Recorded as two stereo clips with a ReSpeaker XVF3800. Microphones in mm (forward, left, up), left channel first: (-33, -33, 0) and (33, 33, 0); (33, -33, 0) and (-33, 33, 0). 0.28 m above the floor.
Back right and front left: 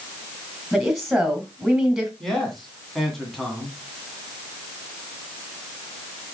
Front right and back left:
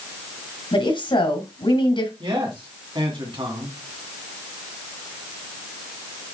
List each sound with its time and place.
0.7 s a woman speaking: 45° right, 2.5 m
2.2 s a man speaking: 140° left, 2.5 m